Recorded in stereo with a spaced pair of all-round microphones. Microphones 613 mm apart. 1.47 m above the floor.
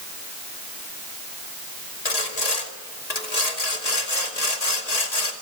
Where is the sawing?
75° left (ahead or behind), 2.0 m.